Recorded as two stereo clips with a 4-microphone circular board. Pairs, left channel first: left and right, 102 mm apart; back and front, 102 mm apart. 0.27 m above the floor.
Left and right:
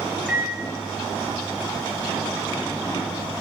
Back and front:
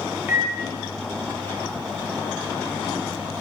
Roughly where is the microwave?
Ahead.